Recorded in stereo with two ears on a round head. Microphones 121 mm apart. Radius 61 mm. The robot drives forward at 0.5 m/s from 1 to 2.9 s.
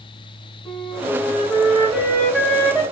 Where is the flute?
5° left (ahead or behind), 1.7 m; by 2.8 s 10° left (ahead or behind), 1.3 m.